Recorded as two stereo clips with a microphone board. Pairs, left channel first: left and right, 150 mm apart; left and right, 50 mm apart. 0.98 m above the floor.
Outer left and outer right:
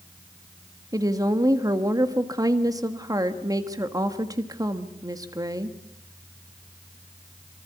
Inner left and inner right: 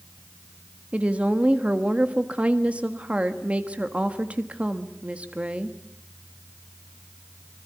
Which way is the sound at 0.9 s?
25° right (ahead or behind).